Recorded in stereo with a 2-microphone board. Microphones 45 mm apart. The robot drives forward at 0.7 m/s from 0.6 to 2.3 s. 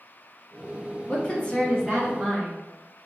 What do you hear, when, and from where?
1.1 s a woman speaking: 30° left (ahead or behind), 1.1 m; by 2.6 s 20° left (ahead or behind), 1.9 m